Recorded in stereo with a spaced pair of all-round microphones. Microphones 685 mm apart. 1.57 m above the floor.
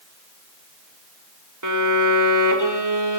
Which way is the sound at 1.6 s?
25° right (ahead or behind).